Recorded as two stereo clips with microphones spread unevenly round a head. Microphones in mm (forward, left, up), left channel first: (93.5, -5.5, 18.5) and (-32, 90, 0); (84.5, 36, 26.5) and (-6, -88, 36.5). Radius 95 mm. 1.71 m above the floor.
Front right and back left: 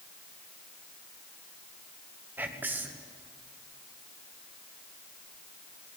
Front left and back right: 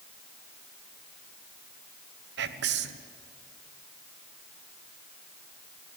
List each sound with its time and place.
2.4 s whispering: 135° right, 1.2 m